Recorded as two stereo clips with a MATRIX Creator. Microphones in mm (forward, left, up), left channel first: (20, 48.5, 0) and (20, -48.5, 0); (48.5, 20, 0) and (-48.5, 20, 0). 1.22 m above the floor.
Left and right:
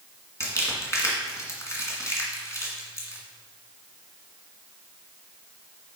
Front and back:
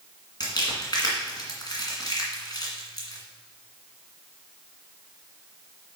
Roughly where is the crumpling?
Ahead left.